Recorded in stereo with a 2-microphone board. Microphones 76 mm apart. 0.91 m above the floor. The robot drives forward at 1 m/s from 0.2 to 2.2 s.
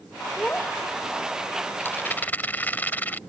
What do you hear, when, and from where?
0.4 s a child speaking: 15° left (ahead or behind); by 1.4 s 10° left (ahead or behind)
1.8 s a rattle: 30° left (ahead or behind); by 3.2 s 25° left (ahead or behind)